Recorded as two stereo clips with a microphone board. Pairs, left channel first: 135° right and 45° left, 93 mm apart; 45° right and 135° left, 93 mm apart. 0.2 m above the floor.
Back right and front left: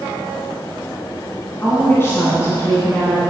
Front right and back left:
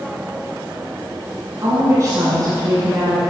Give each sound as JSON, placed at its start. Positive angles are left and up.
{"t": 1.6, "sound": "a woman speaking", "azimuth_deg": 170, "distance_m": 1.7}